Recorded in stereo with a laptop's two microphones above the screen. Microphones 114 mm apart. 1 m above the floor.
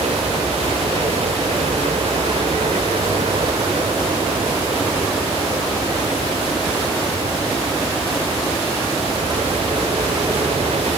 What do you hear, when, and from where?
0.0 s a helicopter: 65° right (ahead or behind)